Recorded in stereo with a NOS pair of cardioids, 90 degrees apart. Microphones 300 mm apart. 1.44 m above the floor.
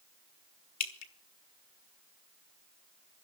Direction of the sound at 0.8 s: 60° left.